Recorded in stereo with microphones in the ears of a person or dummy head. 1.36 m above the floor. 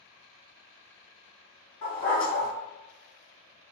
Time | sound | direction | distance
1.8 | a dog barking | 25° left (ahead or behind) | 1.7 m